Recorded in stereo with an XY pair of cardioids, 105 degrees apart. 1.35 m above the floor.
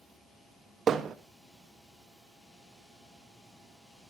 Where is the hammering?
50° right, 1.3 m.